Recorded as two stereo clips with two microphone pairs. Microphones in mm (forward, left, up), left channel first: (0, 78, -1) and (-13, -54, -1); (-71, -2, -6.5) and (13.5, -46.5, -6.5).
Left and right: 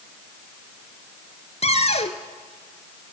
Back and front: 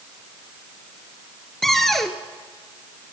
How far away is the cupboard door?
About 1.5 m.